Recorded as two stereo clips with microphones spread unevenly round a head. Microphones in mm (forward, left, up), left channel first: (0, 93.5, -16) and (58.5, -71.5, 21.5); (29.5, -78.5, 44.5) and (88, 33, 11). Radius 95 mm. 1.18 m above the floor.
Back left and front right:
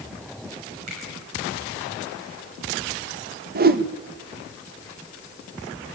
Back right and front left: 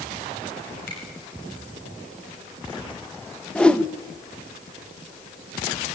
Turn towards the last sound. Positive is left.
turn(degrees=-35)